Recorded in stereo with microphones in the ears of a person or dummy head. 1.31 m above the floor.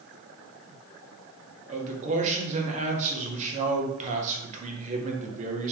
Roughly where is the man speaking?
Right.